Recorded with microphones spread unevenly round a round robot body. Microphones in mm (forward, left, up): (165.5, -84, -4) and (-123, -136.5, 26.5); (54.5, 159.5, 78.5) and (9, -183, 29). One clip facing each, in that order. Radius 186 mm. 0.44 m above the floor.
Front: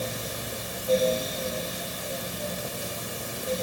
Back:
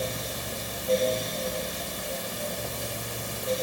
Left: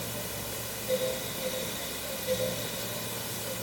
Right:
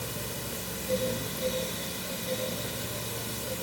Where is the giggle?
I don't hear a giggle.